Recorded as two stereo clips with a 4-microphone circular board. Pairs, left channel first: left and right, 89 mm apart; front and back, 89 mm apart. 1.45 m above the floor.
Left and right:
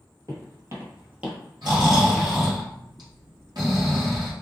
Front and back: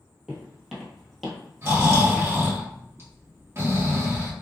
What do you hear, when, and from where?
0.3 s footsteps: 95° right, 1.9 m; by 2.6 s 70° left, 1.5 m
1.6 s snoring: 120° right, 1.8 m